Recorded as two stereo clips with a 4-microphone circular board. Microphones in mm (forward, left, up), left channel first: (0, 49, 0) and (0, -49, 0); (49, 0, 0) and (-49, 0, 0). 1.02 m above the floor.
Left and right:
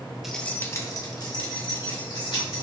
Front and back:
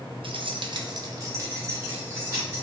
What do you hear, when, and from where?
0.2 s keys jangling: 175° right, 0.5 m; by 2.6 s 115° left, 2 m